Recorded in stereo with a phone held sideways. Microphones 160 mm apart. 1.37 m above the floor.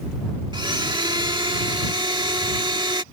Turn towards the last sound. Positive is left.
turn(degrees=-30)  # may be behind; listen again after turning